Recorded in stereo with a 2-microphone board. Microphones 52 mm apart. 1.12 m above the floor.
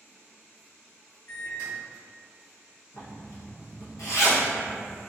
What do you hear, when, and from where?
1.3 s a microwave: 75° left (ahead or behind), 1.7 m
2.9 s a zipper: 75° left (ahead or behind), 1.1 m